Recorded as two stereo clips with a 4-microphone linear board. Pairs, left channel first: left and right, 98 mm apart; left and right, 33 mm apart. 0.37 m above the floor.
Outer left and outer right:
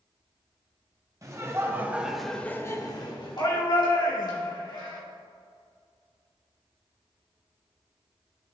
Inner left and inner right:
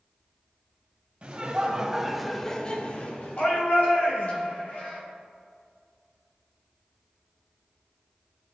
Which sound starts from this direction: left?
A shout, at 3.4 s.